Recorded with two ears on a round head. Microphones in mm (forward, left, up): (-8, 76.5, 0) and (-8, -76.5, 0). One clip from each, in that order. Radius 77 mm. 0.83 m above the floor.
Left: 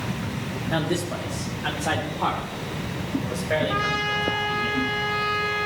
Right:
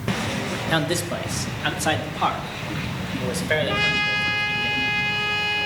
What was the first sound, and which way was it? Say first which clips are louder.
A man speaking: right 2 dB; 50° right (ahead or behind).